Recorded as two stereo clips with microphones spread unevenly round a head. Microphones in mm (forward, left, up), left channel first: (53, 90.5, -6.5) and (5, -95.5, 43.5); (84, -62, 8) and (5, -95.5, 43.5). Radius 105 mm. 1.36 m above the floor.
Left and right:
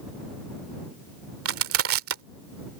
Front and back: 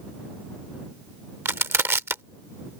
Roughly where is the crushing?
Right.